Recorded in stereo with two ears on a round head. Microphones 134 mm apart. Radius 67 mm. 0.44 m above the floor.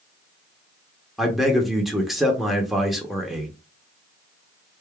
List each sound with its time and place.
1.2 s a man speaking: centre (ahead or behind), 0.8 m